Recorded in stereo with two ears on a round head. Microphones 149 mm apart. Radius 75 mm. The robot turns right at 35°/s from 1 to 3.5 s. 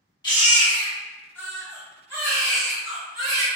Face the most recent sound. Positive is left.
turn(degrees=-120)